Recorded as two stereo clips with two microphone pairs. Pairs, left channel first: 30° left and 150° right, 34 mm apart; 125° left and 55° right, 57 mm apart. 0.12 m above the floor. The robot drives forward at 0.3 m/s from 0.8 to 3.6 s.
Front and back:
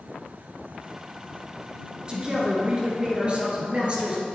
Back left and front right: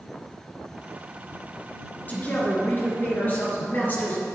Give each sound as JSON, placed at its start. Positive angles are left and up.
{"t": 2.1, "sound": "a woman speaking", "azimuth_deg": 160, "distance_m": 1.7}